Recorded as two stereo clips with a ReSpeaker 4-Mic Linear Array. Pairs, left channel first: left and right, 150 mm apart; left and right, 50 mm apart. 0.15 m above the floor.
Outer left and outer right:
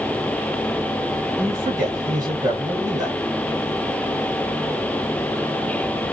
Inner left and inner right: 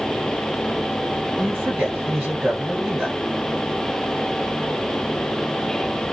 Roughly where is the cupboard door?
No cupboard door in this recording.